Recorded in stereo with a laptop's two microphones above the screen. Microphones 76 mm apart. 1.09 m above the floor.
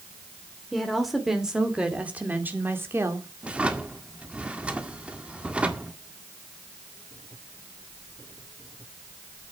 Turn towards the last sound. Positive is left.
turn(degrees=-15)  # may be behind; listen again after turning